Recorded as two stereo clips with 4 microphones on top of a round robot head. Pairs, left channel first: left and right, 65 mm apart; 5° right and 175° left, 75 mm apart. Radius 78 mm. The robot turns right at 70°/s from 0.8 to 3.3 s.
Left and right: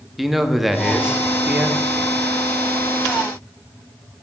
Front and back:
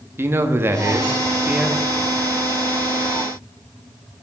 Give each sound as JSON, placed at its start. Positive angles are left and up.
{"t": 0.2, "sound": "a man speaking", "azimuth_deg": -175, "distance_m": 0.9}